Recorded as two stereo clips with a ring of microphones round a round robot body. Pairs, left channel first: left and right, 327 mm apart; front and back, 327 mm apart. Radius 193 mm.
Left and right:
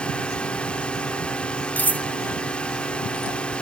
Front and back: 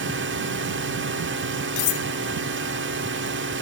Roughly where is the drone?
Behind.